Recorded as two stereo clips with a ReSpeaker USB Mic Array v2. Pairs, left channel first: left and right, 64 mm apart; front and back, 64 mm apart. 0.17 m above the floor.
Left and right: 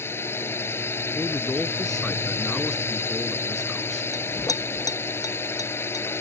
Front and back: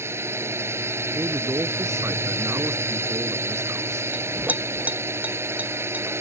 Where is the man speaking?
170° left.